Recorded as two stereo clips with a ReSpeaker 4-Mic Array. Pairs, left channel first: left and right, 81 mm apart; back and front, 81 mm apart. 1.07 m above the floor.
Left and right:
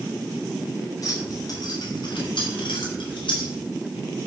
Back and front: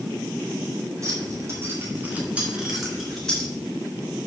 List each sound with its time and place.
1.0 s keys jangling: 50° left, 2.5 m; by 3.5 s 100° left, 2.5 m